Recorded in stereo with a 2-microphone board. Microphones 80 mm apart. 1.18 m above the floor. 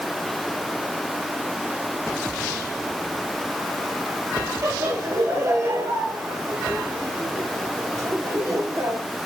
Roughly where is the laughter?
Right.